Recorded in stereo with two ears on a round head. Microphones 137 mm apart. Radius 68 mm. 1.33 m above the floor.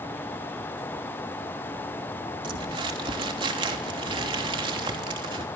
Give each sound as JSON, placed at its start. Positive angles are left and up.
{"t": 2.4, "sound": "crumpling", "side_deg": -30, "distance_m": 3.0}